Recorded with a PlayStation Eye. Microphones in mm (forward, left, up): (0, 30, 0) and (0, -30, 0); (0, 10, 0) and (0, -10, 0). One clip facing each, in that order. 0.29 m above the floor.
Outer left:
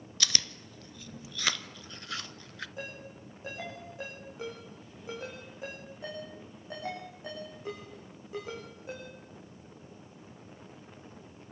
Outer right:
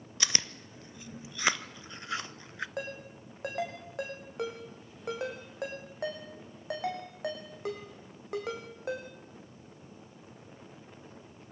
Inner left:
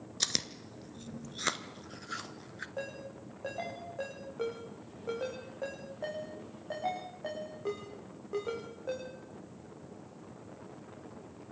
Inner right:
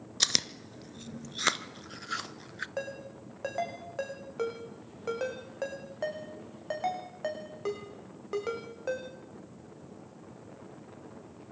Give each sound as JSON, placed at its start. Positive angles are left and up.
{"t": 0.2, "sound": "chewing", "side_deg": -25, "distance_m": 0.7}
{"t": 2.8, "sound": "a ringtone", "side_deg": -70, "distance_m": 6.5}